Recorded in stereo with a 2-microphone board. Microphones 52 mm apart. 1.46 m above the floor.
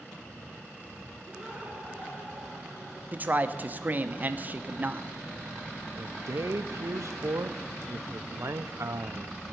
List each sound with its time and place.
1.2 s laughter: 20° right (ahead or behind), 4.5 m; by 3.0 s 10° right (ahead or behind), 5 m
3.1 s a man speaking: 30° right (ahead or behind), 0.8 m
6.0 s a man speaking: 65° right (ahead or behind), 0.6 m